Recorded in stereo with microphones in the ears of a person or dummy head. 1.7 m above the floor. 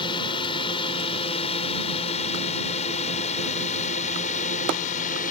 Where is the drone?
25° left (ahead or behind); by 5.3 s 45° left (ahead or behind).